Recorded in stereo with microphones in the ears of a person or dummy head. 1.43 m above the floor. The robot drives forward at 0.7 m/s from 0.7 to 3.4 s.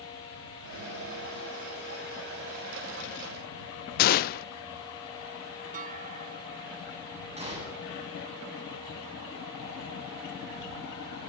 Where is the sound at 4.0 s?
45° left (ahead or behind), 0.5 m.